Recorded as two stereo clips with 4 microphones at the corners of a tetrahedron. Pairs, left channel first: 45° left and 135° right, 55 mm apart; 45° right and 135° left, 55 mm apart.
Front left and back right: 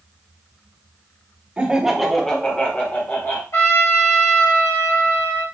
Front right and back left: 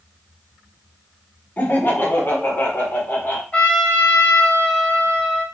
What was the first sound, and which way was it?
Laughter, 80° right.